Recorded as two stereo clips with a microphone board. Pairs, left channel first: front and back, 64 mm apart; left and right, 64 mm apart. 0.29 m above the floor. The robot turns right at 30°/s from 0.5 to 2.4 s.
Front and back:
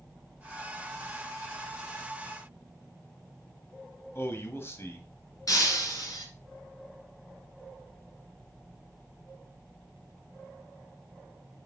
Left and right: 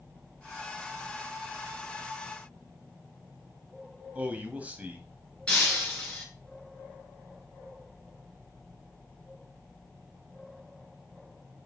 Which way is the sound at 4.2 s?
30° right.